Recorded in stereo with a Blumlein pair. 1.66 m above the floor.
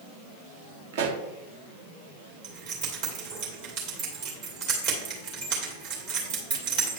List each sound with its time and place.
0.9 s a pop: 55° right, 0.9 m
2.4 s keys jangling: 50° right, 2.5 m